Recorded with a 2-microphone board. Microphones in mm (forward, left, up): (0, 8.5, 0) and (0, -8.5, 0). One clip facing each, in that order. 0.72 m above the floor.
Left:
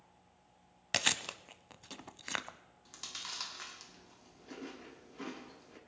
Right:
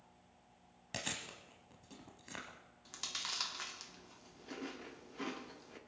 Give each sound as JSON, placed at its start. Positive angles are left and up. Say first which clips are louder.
{"t": 0.9, "sound": "chewing", "louder": "left 10 dB", "side_deg": 45, "distance_m": 0.7}
{"t": 2.9, "sound": "chewing", "louder": "right 2 dB", "side_deg": -5, "distance_m": 1.3}